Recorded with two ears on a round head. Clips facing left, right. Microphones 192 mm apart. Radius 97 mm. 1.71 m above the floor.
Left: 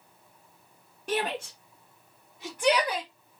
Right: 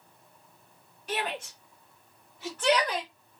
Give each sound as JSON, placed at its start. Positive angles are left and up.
{"t": 1.1, "sound": "a shout", "side_deg": 40, "distance_m": 1.6}